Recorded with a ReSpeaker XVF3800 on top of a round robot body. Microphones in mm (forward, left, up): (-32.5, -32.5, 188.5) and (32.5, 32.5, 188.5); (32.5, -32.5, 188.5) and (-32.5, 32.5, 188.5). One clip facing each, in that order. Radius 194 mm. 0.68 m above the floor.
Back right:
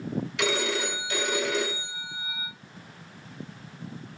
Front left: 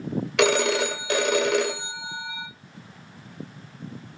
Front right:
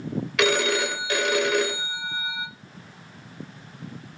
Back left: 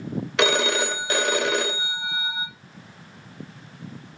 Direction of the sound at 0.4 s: 75° left.